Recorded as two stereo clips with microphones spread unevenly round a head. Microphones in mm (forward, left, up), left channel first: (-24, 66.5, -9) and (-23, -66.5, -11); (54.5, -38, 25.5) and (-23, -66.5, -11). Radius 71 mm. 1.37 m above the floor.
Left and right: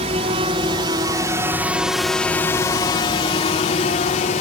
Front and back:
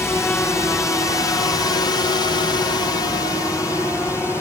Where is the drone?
50° right; by 4.4 s 100° left.